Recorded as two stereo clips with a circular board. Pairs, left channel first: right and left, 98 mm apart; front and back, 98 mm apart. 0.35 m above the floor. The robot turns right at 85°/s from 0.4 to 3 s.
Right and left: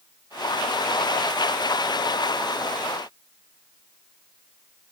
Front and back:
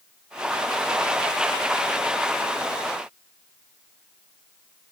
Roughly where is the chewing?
No chewing in this recording.